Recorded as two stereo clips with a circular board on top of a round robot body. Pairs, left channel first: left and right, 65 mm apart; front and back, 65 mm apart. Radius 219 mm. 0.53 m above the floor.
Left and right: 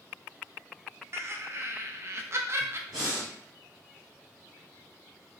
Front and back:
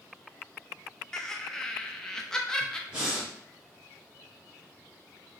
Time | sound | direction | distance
1.1 | laughter | 75° right | 0.7 m
2.9 | breathing | 110° right | 1.0 m